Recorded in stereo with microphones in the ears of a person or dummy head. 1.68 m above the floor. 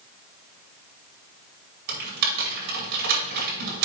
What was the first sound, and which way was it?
Typing on a keyboard, 55° right (ahead or behind).